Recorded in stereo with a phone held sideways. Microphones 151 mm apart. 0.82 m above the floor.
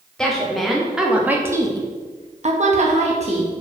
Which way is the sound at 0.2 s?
5° left (ahead or behind).